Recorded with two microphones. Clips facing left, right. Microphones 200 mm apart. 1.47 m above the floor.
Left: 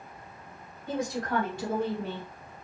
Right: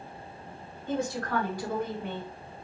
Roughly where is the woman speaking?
Centre.